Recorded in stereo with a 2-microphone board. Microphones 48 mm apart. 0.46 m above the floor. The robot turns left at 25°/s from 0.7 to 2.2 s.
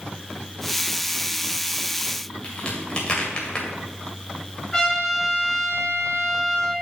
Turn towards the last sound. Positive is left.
turn(degrees=15)  # may be behind; listen again after turning